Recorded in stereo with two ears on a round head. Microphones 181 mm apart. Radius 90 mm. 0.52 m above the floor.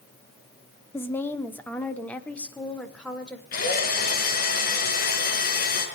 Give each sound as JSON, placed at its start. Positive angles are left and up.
{"t": 0.9, "sound": "a woman speaking", "side_deg": 10, "distance_m": 1.1}
{"t": 3.5, "sound": "a drill", "side_deg": 45, "distance_m": 5.0}